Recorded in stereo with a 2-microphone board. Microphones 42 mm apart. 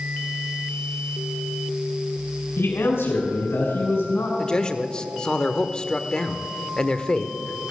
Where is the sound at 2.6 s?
75° left (ahead or behind), 3.5 m.